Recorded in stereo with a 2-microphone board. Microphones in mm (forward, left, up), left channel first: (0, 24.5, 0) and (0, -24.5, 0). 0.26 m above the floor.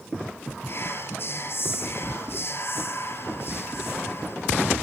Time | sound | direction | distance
0.7 | whispering | 50° left (ahead or behind) | 5.5 m